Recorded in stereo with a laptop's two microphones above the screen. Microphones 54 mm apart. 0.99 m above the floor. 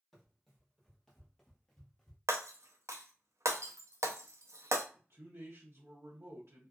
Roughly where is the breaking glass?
Right.